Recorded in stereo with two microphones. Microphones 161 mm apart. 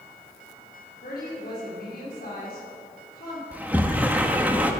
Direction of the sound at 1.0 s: 70° left (ahead or behind).